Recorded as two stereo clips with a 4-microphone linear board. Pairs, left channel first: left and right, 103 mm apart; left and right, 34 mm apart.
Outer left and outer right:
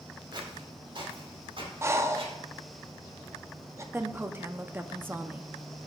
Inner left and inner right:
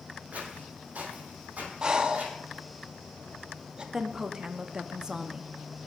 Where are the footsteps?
45° right (ahead or behind), 3.5 m; by 2.4 s 60° right (ahead or behind), 4 m.